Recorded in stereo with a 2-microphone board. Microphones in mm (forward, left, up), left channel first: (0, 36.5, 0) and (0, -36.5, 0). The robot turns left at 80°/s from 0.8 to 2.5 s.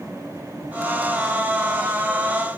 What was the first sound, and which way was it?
Only background noise.